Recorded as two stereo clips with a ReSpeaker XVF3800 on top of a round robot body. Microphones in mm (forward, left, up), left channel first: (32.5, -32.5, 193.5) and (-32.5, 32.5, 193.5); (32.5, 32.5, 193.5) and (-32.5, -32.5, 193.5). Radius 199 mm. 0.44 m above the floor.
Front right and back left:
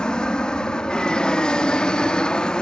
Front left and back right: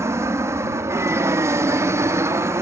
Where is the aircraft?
115° right.